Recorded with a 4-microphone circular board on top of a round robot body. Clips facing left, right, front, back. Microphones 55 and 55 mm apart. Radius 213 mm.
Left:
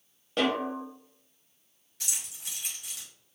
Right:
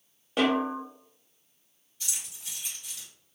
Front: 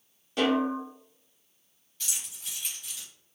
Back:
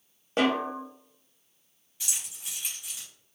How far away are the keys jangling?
About 1.3 m.